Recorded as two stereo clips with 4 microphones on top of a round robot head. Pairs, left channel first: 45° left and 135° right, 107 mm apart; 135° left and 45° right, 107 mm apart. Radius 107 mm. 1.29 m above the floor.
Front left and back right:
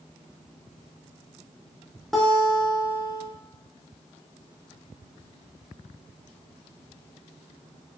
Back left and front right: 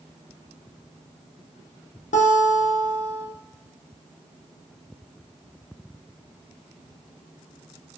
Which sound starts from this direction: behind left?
A guitar, at 2.1 s.